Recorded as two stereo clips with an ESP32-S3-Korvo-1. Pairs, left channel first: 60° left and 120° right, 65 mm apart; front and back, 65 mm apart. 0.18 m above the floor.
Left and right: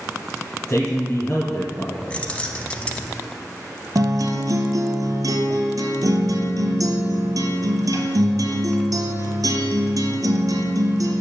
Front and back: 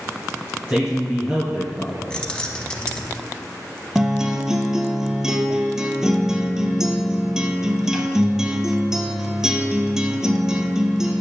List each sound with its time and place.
0.7 s a man speaking: 120° left, 2.0 m
2.1 s keys jangling: 40° left, 0.8 m
4.0 s a guitar: 100° right, 0.8 m